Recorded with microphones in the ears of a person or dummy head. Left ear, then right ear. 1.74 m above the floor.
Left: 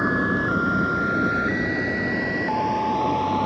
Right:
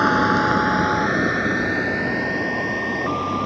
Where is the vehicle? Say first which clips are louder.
Right 5 dB; 70° right (ahead or behind); by 3.5 s 15° right (ahead or behind).